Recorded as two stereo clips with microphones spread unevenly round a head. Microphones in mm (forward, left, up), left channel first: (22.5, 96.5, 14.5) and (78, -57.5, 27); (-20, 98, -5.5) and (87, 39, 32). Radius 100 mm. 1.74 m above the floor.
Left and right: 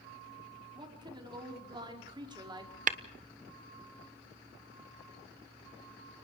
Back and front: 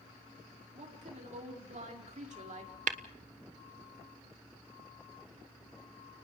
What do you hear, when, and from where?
0.8 s a woman speaking: 10° right, 5 m
2.9 s tapping: 30° right, 1.2 m